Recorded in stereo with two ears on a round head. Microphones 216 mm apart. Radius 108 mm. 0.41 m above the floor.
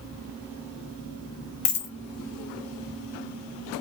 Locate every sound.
1.6 s a dropped coin: 55° left (ahead or behind), 1.4 m